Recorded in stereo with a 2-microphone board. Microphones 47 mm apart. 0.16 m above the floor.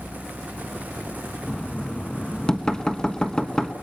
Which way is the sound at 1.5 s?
15° left (ahead or behind).